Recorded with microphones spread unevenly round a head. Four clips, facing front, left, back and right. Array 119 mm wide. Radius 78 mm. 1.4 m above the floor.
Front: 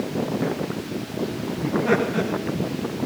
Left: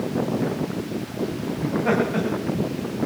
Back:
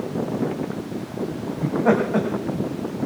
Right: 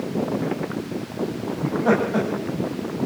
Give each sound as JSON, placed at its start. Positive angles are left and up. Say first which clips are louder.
{"t": 1.6, "sound": "laughter", "louder": "right 2 dB, back 2 dB", "azimuth_deg": -165, "distance_m": 9.5}